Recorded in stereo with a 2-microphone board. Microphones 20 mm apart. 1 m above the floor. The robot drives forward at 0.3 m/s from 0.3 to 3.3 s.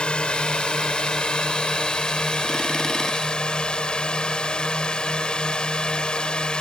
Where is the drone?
55° left (ahead or behind); by 6.6 s 45° left (ahead or behind).